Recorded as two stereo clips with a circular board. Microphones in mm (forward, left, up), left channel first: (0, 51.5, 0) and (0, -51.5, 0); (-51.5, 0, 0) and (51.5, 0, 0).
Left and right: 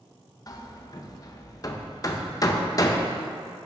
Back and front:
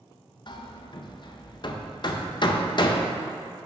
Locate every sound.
0.5 s hammering: 140° left, 0.5 m